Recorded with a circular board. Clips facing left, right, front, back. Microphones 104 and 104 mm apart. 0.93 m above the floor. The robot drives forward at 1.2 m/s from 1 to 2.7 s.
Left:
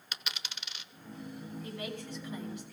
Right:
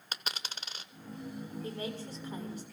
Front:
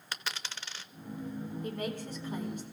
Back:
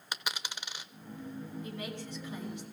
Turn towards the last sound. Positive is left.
turn(degrees=-50)